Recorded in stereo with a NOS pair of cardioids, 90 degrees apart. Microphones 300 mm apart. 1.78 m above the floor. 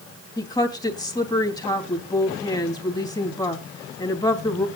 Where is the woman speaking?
15° left, 3.5 m.